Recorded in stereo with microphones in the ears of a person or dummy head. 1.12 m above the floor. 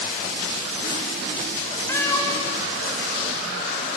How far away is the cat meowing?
About 1.3 m.